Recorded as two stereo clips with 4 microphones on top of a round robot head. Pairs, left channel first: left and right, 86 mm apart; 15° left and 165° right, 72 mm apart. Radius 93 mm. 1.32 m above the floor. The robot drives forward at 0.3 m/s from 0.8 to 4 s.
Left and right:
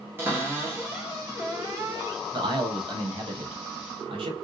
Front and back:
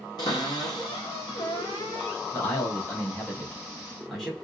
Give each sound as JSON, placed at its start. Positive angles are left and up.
{"t": 0.2, "sound": "a cupboard door", "azimuth_deg": -25, "distance_m": 1.5}
{"t": 2.3, "sound": "a man speaking", "azimuth_deg": -55, "distance_m": 1.4}